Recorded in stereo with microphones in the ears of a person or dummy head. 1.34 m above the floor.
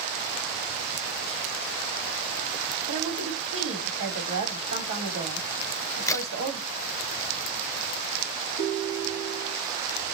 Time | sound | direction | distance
2.9 | a woman speaking | 35° right (ahead or behind) | 4 m
5.6 | a crack | 15° left (ahead or behind) | 0.8 m
8.6 | a ringtone | 70° right (ahead or behind) | 1.3 m